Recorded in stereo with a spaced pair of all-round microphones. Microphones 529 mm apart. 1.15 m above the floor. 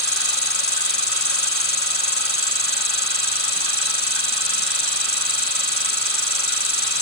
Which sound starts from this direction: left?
An insect, at 0.0 s.